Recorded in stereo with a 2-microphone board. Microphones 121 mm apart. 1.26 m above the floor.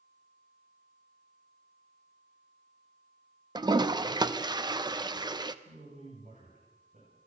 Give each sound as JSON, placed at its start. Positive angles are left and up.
{"t": 3.5, "sound": "a toilet flushing", "side_deg": -35, "distance_m": 0.7}
{"t": 5.7, "sound": "a man speaking", "side_deg": -75, "distance_m": 9.0}